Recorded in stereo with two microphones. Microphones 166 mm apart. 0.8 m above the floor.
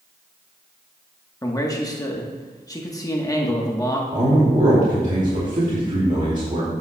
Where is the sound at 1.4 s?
20° left (ahead or behind), 0.9 m.